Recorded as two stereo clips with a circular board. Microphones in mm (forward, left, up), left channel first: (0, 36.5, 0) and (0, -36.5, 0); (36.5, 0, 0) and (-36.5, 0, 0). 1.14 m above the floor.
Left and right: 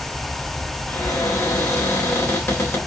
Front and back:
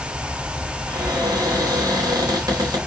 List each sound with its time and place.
0.9 s a cupboard door: 145° left, 4 m